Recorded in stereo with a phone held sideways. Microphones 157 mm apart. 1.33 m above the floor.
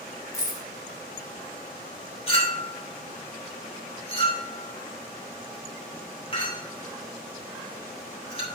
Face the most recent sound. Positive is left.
turn(degrees=35)  # may be behind; listen again after turning